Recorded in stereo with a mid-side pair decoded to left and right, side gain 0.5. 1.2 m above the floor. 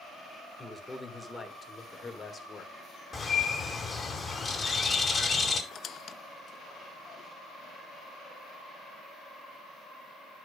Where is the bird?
30° left, 4.5 m.